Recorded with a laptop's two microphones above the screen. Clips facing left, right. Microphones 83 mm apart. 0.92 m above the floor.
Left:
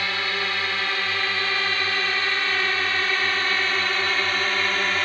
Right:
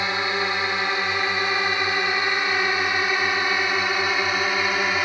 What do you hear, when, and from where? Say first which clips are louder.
0.0 s a drone: right 3 dB; 20° right (ahead or behind); by 5.0 s 10° right (ahead or behind)